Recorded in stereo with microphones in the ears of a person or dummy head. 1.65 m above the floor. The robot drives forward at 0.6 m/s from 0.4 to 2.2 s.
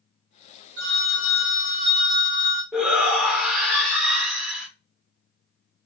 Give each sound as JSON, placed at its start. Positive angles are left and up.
{"t": 0.8, "sound": "a phone ringing", "side_deg": -70, "distance_m": 1.4}
{"t": 2.7, "sound": "a shout", "side_deg": -5, "distance_m": 1.0}